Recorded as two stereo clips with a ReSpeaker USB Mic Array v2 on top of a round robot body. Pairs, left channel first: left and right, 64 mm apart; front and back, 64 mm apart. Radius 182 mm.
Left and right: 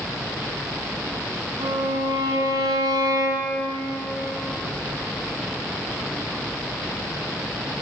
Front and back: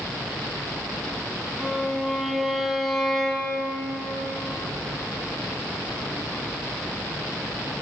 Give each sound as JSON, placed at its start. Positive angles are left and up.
{"t": 1.6, "sound": "a violin", "azimuth_deg": -95, "distance_m": 2.5}